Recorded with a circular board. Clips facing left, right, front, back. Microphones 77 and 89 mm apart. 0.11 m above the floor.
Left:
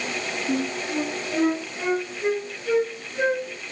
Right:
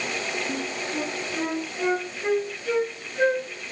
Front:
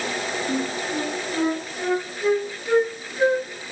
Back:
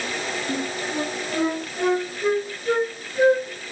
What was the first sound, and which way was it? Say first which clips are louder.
A flute: left 4 dB, front 2 dB; 155° left.